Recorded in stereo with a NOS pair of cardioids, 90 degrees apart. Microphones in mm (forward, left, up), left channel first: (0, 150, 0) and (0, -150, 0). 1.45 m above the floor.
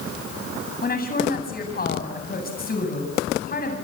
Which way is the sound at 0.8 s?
30° left.